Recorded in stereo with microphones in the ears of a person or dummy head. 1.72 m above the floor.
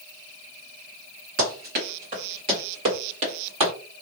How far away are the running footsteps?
About 2.0 m.